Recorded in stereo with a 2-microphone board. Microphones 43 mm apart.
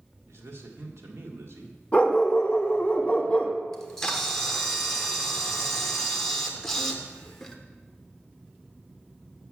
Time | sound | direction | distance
0.3 | a man speaking | 75° right (ahead or behind) | 1.7 m
1.9 | a dog barking | 30° left (ahead or behind) | 1.0 m
3.7 | a camera shutter | 10° left (ahead or behind) | 1.0 m